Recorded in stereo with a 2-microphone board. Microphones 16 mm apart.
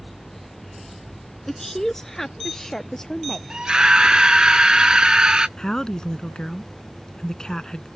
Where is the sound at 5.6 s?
55° left (ahead or behind).